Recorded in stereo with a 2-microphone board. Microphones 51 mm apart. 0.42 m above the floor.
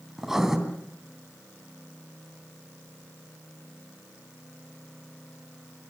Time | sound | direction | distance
0.2 | writing | 5° right (ahead or behind) | 3.5 m